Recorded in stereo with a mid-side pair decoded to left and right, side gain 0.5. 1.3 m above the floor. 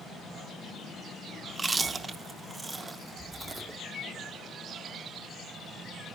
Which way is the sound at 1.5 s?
25° right.